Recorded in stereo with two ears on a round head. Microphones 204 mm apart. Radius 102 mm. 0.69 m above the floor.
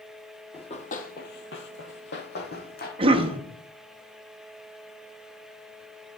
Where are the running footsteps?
25° left (ahead or behind), 1.3 m; by 2.9 s 40° left (ahead or behind), 1.8 m.